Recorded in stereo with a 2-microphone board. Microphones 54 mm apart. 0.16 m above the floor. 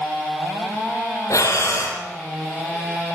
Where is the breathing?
75° left (ahead or behind), 3.5 m.